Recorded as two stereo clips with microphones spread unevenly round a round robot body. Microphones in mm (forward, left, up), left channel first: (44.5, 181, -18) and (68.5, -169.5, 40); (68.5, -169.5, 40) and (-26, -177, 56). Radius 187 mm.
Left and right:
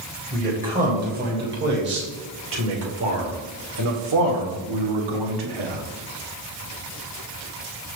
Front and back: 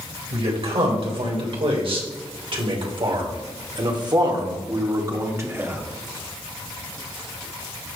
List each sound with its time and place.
0.3 s a man speaking: 160° right, 4 m; by 5.8 s 105° right, 2 m